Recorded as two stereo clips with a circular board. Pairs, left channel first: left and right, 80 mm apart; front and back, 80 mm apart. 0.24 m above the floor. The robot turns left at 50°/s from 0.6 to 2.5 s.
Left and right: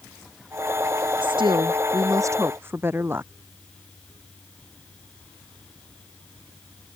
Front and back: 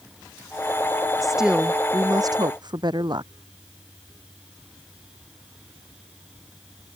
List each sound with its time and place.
1.2 s a woman speaking: 90° right; by 3.3 s 150° right